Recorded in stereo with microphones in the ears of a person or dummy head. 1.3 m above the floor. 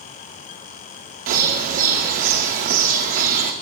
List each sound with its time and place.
1.3 s a bird: 40° right (ahead or behind), 1.1 m